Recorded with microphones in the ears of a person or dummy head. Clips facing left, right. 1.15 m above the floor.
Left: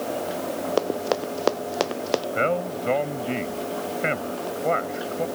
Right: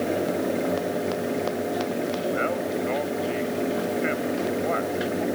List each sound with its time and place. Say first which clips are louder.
0.8 s running footsteps: left 2 dB; 70° left (ahead or behind)
2.4 s a man speaking: left 1 dB; 55° left (ahead or behind)